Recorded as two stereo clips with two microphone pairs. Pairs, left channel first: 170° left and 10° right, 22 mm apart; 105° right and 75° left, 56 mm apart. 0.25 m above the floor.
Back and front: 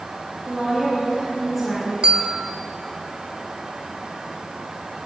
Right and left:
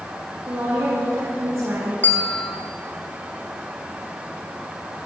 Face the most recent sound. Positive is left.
turn(degrees=-45)